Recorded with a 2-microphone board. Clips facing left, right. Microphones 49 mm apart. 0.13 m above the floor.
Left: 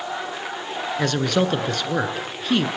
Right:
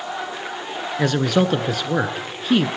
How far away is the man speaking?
About 1.4 m.